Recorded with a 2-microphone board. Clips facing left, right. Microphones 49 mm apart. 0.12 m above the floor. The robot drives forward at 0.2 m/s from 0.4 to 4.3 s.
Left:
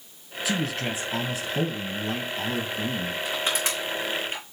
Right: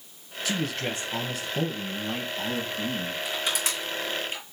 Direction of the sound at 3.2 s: 35° left (ahead or behind).